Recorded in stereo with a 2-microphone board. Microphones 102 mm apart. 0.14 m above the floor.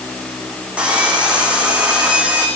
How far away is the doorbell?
I don't hear a doorbell.